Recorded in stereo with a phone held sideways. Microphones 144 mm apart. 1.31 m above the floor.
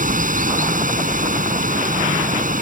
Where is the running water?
65° right (ahead or behind).